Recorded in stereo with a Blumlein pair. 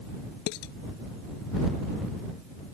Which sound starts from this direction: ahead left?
Dishes clattering, at 0.5 s.